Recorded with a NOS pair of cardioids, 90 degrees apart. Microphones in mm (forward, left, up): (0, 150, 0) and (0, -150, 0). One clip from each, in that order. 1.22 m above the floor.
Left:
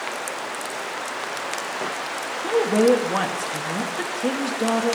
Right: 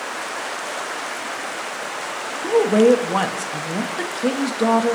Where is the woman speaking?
20° right, 1.9 m.